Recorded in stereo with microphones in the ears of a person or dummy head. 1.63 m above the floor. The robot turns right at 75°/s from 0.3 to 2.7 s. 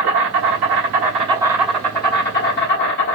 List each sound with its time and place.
0.0 s an insect: 105° right, 3 m; by 3.1 s 75° left, 3 m